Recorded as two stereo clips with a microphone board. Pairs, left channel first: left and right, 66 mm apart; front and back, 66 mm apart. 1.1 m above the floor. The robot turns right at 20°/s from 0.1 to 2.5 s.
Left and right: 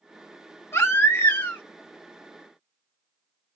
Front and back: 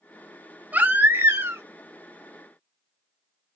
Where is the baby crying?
125° left, 0.8 m; by 1.6 s 140° left, 0.8 m.